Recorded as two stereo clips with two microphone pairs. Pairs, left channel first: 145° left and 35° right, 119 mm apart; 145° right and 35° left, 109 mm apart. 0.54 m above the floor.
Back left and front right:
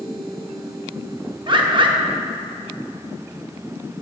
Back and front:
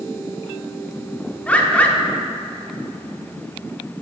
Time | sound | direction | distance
1.5 | a bird | 75° right | 0.7 m